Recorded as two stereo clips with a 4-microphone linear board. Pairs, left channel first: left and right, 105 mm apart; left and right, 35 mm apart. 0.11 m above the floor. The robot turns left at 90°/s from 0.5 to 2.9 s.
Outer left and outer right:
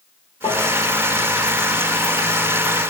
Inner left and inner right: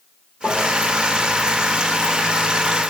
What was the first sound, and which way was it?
Tapping, 70° left (ahead or behind).